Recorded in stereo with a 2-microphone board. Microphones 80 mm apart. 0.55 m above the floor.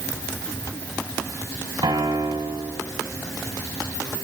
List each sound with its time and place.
1.8 s a piano: 80° right, 1.5 m